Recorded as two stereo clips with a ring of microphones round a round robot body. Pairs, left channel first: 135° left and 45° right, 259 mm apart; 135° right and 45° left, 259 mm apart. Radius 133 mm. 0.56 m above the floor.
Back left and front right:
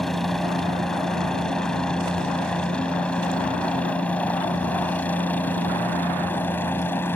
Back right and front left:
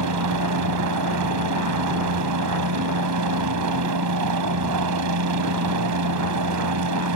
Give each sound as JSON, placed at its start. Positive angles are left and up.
{"t": 0.0, "sound": "a helicopter", "azimuth_deg": 45}